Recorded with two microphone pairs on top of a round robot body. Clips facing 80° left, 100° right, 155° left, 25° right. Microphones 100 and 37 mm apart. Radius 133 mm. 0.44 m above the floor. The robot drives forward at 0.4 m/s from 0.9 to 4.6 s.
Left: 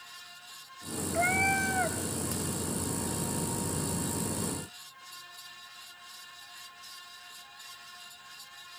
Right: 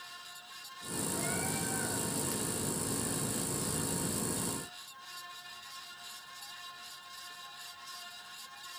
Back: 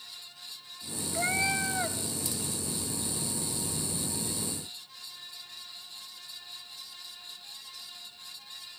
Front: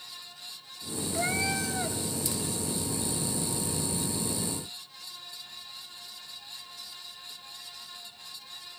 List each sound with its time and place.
1.1 s a cat meowing: 75° left, 1.1 m; by 2.0 s 90° left, 1.0 m